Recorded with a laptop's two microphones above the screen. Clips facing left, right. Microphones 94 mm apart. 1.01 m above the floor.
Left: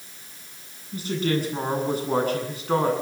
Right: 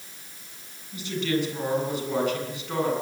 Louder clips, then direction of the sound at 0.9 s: Left 2 dB; 40° left (ahead or behind).